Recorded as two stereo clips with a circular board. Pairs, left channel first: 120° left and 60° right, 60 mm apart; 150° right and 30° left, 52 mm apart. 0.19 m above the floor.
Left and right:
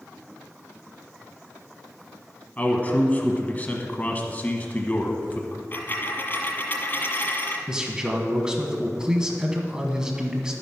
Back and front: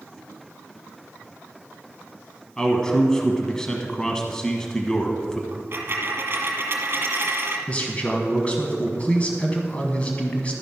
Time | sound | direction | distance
2.6 | a man speaking | 145° left | 1.1 m
5.5 | a dropped coin | 70° left | 1.4 m
7.7 | a man speaking | 120° right | 1.2 m